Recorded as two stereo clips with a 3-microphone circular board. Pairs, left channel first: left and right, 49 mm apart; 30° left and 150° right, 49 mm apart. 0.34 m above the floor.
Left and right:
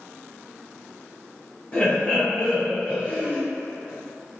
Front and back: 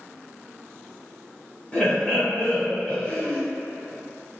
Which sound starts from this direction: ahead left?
Laughter, at 1.7 s.